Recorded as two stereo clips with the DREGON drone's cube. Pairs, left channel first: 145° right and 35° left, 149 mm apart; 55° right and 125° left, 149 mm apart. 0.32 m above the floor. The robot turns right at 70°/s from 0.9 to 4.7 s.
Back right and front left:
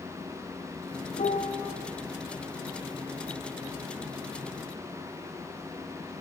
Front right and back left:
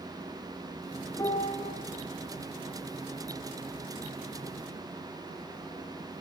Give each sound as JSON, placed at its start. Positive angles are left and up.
{"t": 1.2, "sound": "a piano", "azimuth_deg": -120, "distance_m": 3.0}